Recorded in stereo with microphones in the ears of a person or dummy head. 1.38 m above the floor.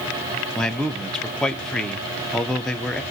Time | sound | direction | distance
0.6 | a man speaking | centre (ahead or behind) | 0.5 m